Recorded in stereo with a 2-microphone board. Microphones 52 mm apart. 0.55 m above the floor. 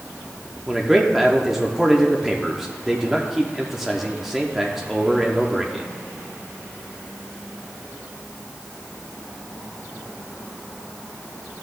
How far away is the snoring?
I don't hear snoring.